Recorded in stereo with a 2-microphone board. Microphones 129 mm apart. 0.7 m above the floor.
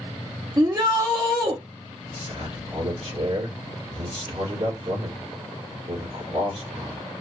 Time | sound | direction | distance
0.6 | a shout | 30° right (ahead or behind) | 0.7 m
2.1 | a man speaking | 60° right (ahead or behind) | 2 m